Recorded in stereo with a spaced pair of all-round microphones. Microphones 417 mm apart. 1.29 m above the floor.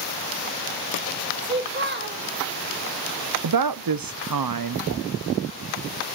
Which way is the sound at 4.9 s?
35° left (ahead or behind).